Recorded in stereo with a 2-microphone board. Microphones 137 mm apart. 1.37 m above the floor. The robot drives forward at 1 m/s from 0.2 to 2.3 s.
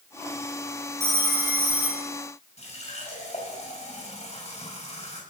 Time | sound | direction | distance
1.0 | a phone ringing | 20° right (ahead or behind) | 1.2 m
2.6 | a running tap | 50° left (ahead or behind) | 5 m